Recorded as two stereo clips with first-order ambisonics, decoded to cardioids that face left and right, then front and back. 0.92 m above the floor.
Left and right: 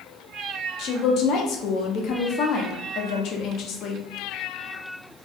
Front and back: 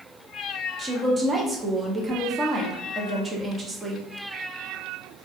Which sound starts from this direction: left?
A woman speaking, at 0.8 s.